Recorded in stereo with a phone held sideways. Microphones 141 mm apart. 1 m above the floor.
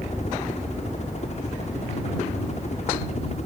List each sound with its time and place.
0.0 s a helicopter: 50° left (ahead or behind)